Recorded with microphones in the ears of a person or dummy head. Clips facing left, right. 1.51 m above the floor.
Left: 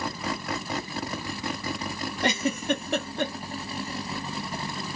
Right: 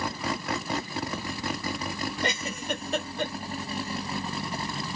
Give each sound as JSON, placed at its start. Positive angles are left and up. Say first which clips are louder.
{"t": 2.2, "sound": "a giggle", "louder": "left 9 dB", "side_deg": 55, "distance_m": 1.1}